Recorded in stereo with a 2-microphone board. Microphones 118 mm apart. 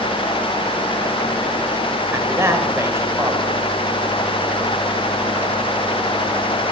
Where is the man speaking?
25° right (ahead or behind), 2 m.